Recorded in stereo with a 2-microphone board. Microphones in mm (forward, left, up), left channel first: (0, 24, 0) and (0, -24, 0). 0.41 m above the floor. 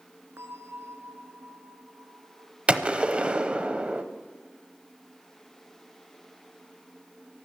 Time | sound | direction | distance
0.4 | a bell | 80° right | 1.0 m
2.7 | a gunshot | 25° right (ahead or behind) | 0.7 m